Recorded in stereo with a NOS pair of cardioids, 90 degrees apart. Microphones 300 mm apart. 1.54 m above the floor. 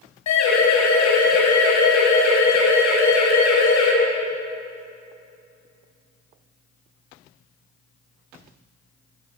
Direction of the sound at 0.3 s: 65° left.